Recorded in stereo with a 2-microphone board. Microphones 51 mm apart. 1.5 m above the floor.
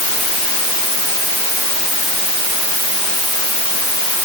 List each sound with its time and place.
Only background noise.